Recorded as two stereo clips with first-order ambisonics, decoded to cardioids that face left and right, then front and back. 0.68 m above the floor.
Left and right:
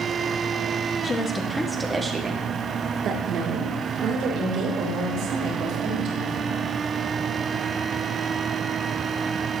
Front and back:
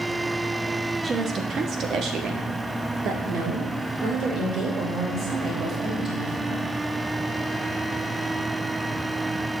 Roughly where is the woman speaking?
Behind left.